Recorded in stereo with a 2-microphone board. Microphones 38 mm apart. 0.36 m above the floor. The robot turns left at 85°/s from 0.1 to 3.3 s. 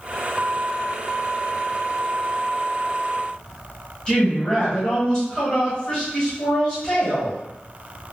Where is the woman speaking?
15° left (ahead or behind), 1.3 m.